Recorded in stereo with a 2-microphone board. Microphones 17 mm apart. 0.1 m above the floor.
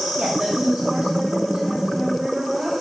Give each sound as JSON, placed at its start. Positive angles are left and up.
{"t": 0.2, "sound": "a woman speaking", "side_deg": -65, "distance_m": 6.0}